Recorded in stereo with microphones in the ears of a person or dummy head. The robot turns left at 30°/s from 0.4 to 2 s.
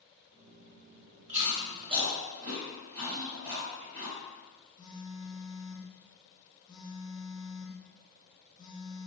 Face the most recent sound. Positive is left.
turn(degrees=25)  # may be behind; listen again after turning